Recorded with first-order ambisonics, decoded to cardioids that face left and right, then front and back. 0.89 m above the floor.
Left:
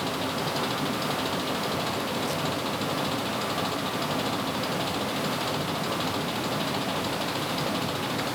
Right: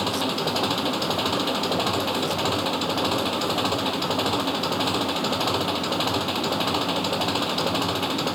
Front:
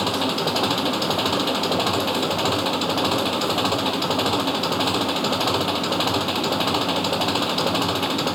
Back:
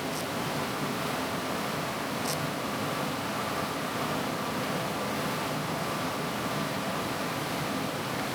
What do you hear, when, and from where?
0.0 s an engine running: 25° right